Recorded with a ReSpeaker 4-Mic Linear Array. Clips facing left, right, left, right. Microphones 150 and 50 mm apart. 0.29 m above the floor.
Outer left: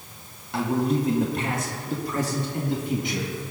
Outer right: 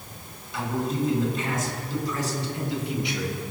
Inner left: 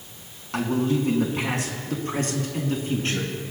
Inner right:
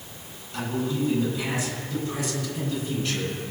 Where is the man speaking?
65° left (ahead or behind), 2.5 m; by 3.3 s 40° left (ahead or behind), 3.5 m.